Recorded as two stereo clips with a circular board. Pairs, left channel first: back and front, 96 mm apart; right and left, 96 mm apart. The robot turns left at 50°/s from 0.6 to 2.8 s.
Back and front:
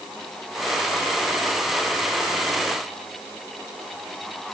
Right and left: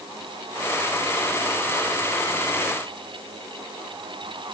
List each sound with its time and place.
Only background noise.